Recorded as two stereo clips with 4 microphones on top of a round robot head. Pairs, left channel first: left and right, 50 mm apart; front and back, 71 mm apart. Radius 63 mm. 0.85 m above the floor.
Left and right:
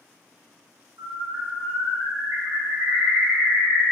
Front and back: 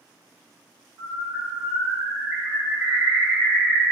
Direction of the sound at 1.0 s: 105° right.